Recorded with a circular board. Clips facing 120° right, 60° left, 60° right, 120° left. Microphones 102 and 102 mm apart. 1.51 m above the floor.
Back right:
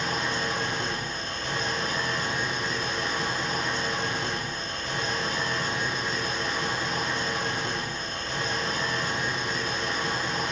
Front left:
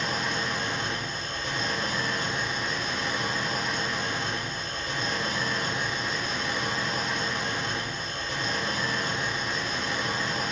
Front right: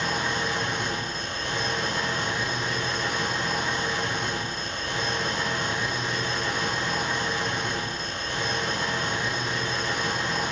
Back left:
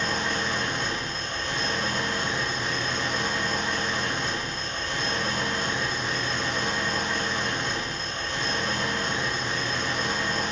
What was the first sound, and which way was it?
An engine running, 115° right.